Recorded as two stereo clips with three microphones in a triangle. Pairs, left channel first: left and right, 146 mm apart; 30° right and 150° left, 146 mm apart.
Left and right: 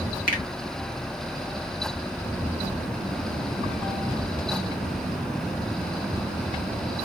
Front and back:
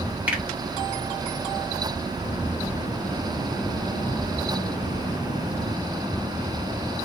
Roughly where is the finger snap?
Left.